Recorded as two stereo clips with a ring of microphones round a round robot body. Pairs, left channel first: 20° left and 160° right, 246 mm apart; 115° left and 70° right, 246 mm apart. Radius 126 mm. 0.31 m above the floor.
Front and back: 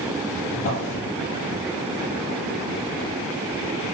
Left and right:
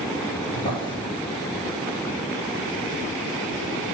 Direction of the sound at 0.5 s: 40° left.